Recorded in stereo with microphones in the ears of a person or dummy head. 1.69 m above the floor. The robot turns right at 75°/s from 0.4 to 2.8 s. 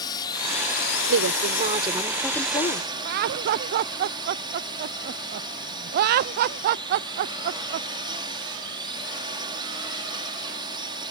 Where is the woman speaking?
85° right; by 2.9 s 45° left.